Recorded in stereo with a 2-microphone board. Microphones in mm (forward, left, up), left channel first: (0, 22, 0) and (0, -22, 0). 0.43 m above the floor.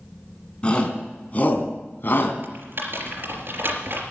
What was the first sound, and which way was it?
A shout, 25° left (ahead or behind).